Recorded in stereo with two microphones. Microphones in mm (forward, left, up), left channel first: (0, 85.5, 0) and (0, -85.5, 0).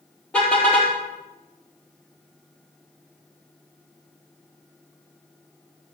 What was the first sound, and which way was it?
A car horn, 5° left (ahead or behind).